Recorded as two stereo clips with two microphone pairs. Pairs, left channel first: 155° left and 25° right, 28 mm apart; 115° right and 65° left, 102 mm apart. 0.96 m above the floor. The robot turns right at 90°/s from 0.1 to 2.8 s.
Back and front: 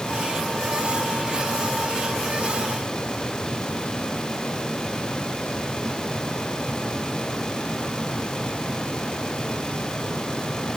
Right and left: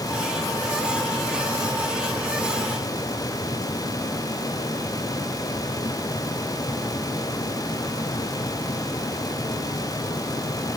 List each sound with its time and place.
Only background noise.